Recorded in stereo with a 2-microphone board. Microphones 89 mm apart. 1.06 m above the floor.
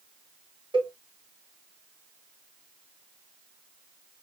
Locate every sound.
0.7 s a cowbell: 70° right (ahead or behind), 1.7 m